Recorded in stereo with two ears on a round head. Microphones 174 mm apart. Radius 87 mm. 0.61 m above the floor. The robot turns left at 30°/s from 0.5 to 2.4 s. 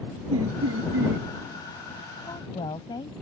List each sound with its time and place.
0.3 s laughter: 80° right; by 1.3 s 60° right (ahead or behind)
2.2 s a woman speaking: 15° left (ahead or behind); by 3.1 s 25° left (ahead or behind)